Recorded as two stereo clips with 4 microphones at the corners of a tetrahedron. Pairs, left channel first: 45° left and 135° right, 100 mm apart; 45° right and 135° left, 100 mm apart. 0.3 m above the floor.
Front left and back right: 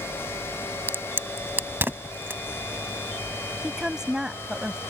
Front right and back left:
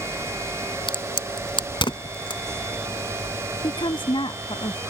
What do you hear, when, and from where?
0.9 s a crack: 70° right
3.6 s a woman speaking: 50° right